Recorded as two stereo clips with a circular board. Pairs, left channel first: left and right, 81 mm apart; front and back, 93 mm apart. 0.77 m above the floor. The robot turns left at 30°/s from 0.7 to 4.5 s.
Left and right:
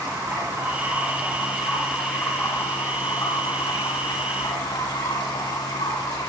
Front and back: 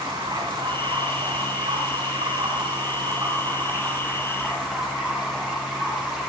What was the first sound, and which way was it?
Running water, 150° right.